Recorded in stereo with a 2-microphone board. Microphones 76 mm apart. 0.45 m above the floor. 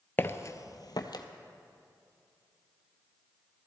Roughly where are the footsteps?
Left.